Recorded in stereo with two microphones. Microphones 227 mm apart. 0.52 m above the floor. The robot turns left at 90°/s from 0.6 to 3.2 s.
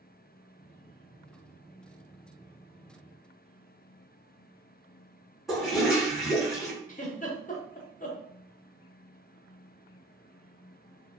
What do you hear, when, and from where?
5.5 s a toilet flushing: centre (ahead or behind), 1.2 m
6.9 s a giggle: 35° left (ahead or behind), 0.7 m